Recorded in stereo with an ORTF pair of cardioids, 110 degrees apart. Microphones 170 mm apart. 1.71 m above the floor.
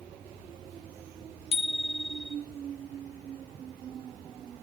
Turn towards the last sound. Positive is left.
turn(degrees=35)